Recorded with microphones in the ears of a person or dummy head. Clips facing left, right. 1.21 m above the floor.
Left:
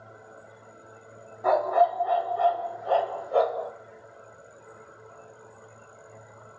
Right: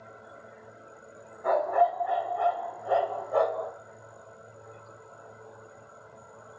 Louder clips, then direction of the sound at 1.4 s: Left 2 dB; 55° left (ahead or behind).